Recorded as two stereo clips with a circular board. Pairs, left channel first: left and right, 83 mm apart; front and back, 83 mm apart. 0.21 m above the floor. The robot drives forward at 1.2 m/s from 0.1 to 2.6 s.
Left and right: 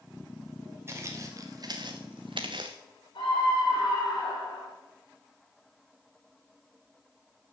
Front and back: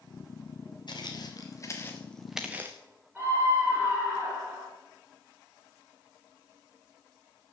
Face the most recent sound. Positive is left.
turn(degrees=105)